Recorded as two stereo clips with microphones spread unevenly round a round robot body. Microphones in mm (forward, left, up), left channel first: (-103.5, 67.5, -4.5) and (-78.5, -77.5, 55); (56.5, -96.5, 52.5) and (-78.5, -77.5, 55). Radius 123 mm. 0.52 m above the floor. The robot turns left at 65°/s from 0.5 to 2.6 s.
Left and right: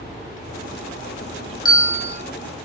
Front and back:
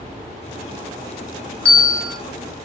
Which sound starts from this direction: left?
A bell, at 1.6 s.